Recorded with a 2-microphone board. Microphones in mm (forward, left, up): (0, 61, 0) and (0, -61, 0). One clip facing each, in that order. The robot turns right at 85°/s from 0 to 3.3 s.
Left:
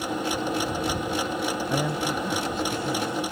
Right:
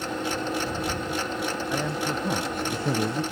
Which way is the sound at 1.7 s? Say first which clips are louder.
Left 1 dB; 160° left.